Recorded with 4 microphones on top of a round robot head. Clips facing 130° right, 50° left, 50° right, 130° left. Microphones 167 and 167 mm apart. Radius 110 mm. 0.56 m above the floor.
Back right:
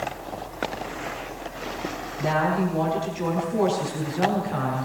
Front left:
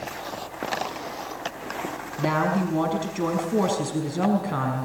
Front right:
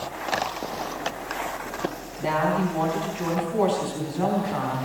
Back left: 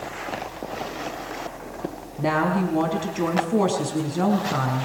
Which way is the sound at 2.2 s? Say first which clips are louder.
Even, back left 1 dB; 85° left.